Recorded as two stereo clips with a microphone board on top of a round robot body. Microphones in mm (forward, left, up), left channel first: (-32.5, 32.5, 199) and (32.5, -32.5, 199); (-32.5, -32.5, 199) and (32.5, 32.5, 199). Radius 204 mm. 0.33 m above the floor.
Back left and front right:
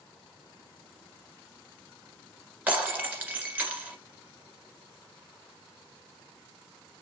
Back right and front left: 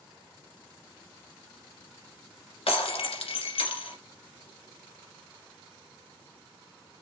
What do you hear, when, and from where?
2.7 s breaking glass: 115° right, 1.7 m